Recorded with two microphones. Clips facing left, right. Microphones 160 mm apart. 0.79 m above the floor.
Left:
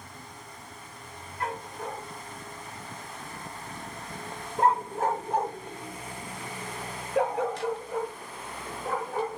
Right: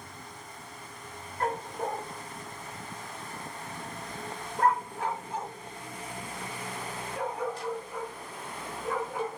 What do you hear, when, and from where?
1.4 s a dog barking: 45° right (ahead or behind), 1.9 m; by 9.4 s 75° left (ahead or behind), 2.5 m